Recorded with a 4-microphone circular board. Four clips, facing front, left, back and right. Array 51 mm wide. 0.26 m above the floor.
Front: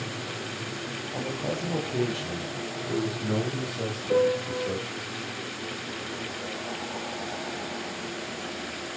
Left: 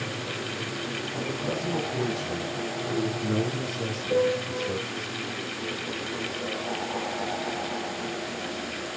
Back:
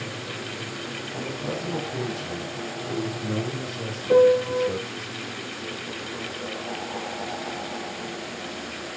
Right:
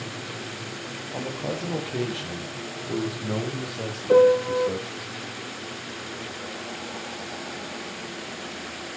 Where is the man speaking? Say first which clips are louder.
Right 2 dB, even; 60° right, 8.5 m; by 5.1 s 55° right, 11.5 m.